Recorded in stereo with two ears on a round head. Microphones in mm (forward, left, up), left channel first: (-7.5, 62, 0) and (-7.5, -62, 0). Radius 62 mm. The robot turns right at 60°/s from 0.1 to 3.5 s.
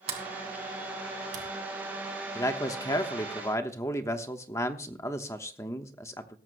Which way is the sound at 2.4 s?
20° left (ahead or behind).